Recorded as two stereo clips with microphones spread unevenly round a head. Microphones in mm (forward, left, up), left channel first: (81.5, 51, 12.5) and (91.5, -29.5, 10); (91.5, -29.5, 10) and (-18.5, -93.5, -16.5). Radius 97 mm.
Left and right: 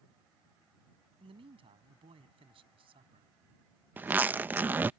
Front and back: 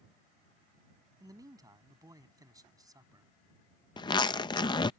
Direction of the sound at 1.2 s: 85° right.